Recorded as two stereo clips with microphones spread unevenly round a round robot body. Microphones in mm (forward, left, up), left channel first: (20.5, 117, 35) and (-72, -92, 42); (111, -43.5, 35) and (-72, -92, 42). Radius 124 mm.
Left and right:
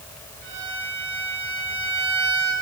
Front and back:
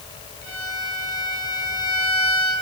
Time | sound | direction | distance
0.4 | a violin | 125° right | 9.5 m